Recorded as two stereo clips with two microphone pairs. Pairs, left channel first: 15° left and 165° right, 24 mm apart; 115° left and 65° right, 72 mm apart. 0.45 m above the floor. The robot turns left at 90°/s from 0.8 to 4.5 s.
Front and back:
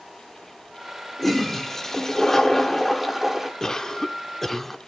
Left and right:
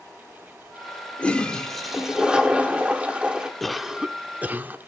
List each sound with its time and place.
1.2 s a toilet flushing: 85° left, 1.3 m; by 3.5 s 125° right, 1.3 m
3.6 s a cough: 35° left, 0.8 m; by 4.8 s 50° right, 0.8 m